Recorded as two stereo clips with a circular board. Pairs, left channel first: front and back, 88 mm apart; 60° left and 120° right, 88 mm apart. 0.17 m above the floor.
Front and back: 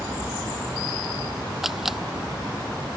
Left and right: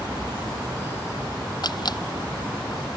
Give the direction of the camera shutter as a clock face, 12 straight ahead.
9 o'clock.